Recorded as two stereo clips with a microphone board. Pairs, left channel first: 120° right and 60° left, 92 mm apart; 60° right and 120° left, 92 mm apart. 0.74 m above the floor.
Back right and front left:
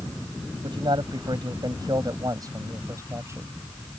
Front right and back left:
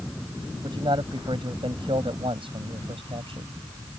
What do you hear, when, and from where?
0.6 s a man speaking: 90° left; by 3.6 s 120° left